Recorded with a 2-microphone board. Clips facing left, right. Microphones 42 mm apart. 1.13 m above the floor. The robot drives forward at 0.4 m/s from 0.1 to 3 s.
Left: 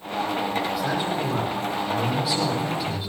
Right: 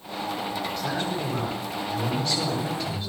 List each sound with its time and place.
0.8 s a man speaking: 10° left (ahead or behind), 7 m